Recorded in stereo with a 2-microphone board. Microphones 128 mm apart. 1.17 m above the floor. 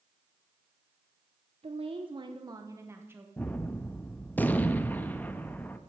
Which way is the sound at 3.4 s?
15° left (ahead or behind).